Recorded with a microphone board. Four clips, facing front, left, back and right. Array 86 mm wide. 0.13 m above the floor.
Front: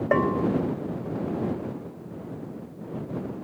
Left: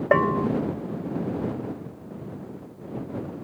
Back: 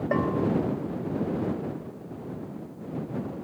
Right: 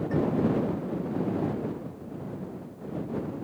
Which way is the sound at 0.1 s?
75° left.